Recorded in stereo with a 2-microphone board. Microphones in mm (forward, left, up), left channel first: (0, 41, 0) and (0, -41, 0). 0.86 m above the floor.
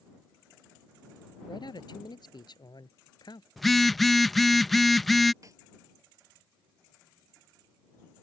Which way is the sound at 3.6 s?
Centre (ahead or behind).